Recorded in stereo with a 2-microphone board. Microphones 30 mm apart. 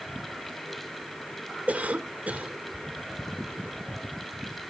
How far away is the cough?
About 2 m.